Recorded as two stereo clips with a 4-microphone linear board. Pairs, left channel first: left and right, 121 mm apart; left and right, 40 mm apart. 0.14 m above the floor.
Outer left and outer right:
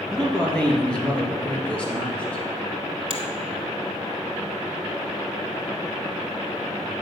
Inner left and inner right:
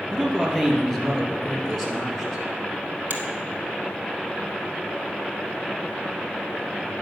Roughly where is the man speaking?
Centre.